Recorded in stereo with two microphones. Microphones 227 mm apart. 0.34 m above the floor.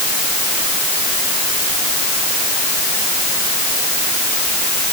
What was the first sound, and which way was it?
Only background noise.